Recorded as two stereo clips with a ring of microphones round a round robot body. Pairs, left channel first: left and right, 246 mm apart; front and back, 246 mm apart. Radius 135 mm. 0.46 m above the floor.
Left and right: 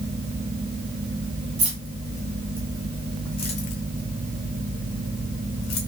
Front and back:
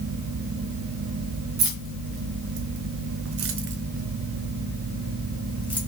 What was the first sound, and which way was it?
Keys jangling, 160° right.